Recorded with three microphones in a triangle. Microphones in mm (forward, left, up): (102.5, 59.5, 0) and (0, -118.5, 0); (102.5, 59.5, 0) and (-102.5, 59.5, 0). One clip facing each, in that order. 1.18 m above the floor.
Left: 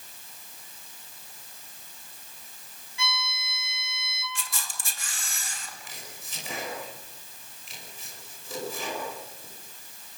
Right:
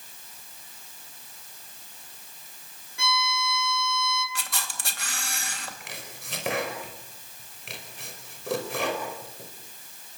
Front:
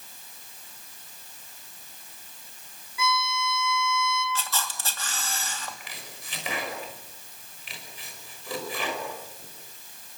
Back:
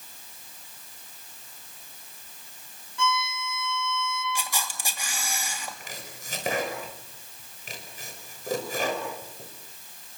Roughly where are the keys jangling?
No keys jangling in this recording.